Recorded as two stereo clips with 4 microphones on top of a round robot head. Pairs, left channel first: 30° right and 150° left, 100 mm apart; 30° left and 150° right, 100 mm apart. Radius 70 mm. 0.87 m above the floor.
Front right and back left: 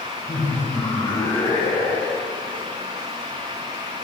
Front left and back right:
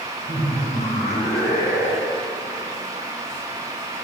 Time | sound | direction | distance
0.3 | laughter | 45° left | 5 m